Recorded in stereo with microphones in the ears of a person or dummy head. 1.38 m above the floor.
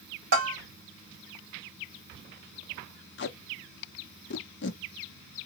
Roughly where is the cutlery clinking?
I don't hear cutlery clinking.